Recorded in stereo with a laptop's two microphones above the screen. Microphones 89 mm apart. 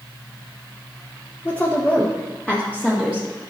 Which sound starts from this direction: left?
A woman speaking, at 1.4 s.